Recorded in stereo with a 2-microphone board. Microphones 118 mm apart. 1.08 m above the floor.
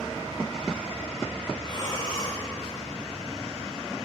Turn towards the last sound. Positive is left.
turn(degrees=45)  # may be behind; listen again after turning